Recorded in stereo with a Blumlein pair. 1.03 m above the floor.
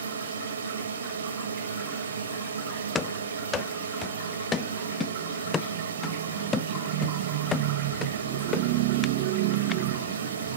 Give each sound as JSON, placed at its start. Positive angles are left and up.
{"t": 0.0, "sound": "a drone", "azimuth_deg": -70}
{"t": 3.0, "sound": "running footsteps", "azimuth_deg": 20}